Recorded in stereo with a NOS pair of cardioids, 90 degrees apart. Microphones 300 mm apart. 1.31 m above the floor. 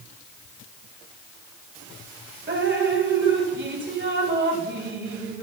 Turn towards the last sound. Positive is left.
turn(degrees=-35)